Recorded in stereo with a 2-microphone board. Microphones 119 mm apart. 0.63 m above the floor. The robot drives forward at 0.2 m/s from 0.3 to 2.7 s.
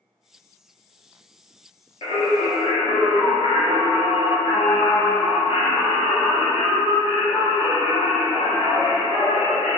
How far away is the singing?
About 0.7 m.